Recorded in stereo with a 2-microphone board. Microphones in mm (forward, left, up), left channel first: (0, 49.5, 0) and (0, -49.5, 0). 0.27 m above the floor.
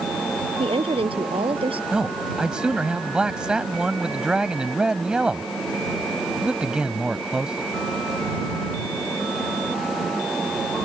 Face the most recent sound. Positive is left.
turn(degrees=-10)  # may be behind; listen again after turning